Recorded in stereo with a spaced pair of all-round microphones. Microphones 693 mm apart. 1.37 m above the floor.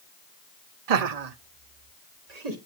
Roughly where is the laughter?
Right.